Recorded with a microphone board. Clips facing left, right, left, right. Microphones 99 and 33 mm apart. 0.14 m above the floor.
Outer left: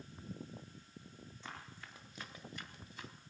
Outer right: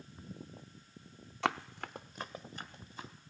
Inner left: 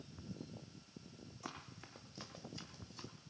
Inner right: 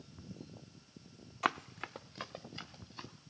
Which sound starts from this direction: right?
Running footsteps, at 1.4 s.